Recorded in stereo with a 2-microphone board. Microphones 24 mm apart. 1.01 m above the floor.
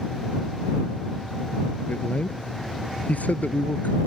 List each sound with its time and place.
1.9 s a man speaking: 90° left